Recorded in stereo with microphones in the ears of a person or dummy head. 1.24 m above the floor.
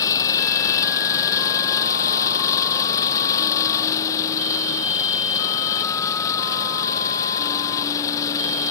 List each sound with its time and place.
0.0 s an engine running: 20° left (ahead or behind)